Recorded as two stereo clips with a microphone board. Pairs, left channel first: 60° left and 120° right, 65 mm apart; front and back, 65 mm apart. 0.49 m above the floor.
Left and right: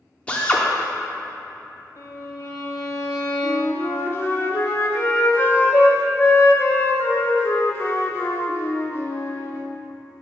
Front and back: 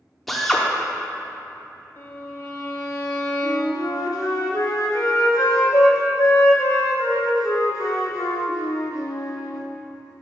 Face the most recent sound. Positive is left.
turn(degrees=10)